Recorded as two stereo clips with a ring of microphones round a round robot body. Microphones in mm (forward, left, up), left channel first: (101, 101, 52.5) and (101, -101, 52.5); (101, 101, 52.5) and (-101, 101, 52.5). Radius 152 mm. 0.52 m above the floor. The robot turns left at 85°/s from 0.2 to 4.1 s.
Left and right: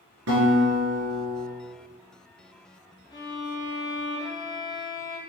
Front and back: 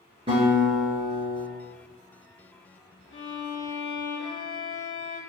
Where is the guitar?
105° right, 1.2 m; by 1.4 s 155° left, 1.2 m.